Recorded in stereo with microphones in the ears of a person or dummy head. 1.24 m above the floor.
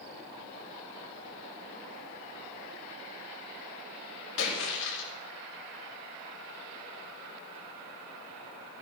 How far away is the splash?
About 5 m.